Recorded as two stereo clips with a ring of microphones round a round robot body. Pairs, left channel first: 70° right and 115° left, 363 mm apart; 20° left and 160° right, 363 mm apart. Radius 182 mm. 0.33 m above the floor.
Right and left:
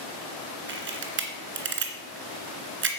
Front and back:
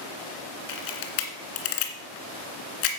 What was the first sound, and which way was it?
A camera shutter, 50° left.